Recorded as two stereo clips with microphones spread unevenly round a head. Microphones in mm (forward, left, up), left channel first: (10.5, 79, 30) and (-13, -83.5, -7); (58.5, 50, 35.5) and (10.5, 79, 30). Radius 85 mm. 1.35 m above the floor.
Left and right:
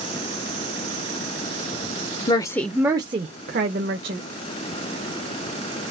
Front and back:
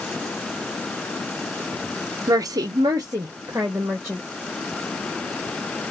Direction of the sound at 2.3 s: 140° left.